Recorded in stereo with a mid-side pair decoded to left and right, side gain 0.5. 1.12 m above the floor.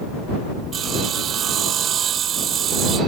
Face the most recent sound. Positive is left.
turn(degrees=-55)